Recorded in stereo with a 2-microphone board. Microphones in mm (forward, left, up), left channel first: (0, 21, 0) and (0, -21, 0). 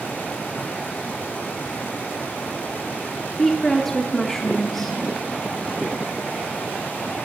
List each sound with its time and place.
3.4 s a woman speaking: 5° left (ahead or behind), 0.8 m